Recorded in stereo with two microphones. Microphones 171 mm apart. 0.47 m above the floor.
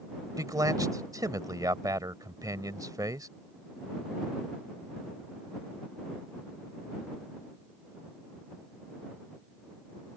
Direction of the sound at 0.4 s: 20° right (ahead or behind).